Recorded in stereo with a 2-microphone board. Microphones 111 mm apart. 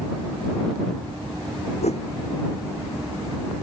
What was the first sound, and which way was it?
A whoosh, 85° left.